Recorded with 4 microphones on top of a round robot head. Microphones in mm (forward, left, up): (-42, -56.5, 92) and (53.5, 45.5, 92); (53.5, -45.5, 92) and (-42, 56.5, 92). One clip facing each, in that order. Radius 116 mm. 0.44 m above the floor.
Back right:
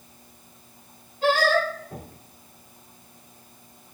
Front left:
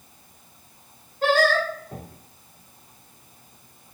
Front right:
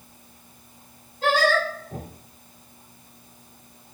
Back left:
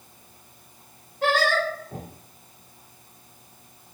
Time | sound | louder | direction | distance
1.2 | singing | front left 1 dB, front right 1 dB | 90° left | 1.6 m